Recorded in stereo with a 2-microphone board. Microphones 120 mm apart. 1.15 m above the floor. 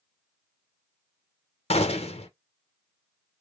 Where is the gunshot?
55° left (ahead or behind), 0.7 m.